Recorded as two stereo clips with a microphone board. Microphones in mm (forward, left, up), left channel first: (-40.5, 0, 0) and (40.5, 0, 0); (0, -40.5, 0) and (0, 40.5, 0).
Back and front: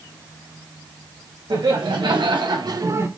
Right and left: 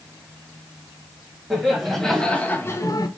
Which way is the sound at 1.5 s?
Straight ahead.